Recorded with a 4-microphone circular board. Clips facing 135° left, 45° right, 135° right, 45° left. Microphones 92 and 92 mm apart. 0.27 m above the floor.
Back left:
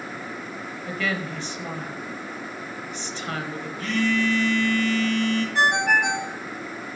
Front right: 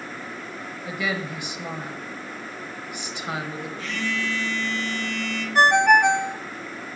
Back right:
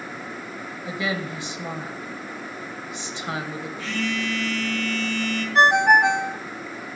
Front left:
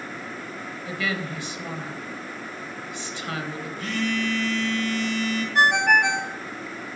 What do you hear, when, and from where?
0.8 s a woman speaking: 105° right, 1.1 m
3.8 s a phone buzzing: 90° left, 3 m
5.5 s a ringtone: 80° right, 0.6 m